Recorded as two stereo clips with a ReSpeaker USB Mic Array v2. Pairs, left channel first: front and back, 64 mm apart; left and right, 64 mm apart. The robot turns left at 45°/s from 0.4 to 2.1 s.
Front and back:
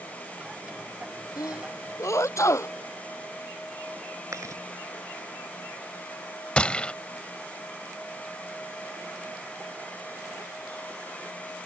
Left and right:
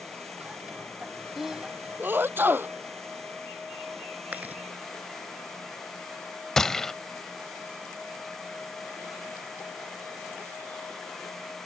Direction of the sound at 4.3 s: 155° right.